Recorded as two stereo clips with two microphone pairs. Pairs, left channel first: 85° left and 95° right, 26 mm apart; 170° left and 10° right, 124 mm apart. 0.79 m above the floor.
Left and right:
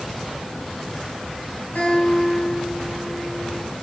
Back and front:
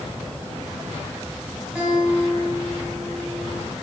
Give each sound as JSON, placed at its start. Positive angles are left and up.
{"t": 1.8, "sound": "a guitar", "azimuth_deg": 70, "distance_m": 4.5}